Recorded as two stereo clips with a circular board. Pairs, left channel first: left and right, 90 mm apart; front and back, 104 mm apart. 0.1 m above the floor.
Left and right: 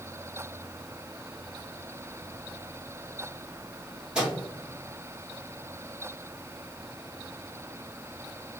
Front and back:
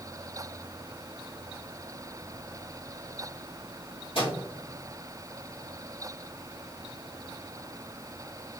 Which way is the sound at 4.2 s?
10° right.